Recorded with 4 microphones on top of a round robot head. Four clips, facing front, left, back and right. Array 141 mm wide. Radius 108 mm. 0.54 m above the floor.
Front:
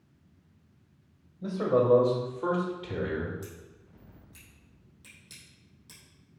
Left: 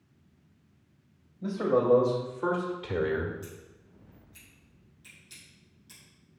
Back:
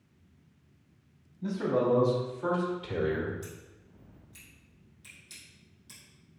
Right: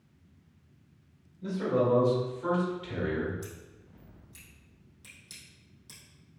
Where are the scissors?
45° right, 3.5 m.